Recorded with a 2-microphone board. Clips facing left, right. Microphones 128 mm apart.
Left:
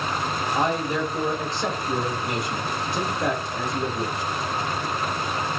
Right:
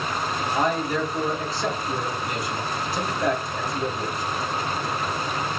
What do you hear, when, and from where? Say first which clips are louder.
0.6 s a man speaking: right 1 dB; 25° left (ahead or behind), 1.5 m